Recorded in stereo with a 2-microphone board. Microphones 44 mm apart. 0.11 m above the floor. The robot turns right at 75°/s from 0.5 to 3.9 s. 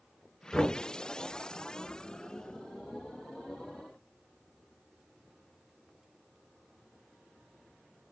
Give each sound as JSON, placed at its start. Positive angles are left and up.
{"t": 0.5, "sound": "knocking", "side_deg": 5, "distance_m": 0.9}